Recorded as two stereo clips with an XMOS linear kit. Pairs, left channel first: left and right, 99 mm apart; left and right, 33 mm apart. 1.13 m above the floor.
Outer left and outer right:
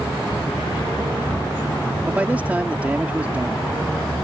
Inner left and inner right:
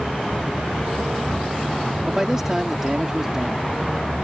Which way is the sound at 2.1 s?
15° right (ahead or behind).